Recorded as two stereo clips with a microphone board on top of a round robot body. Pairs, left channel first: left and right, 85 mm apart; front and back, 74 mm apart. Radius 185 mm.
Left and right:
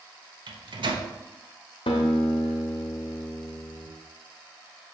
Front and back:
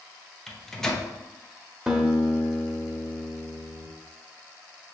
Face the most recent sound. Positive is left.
turn(degrees=100)